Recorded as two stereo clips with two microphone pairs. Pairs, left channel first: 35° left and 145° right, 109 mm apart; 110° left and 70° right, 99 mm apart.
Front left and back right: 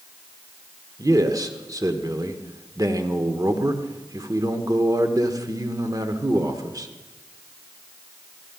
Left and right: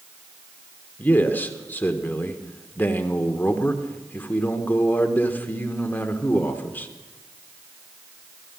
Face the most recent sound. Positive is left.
turn(degrees=175)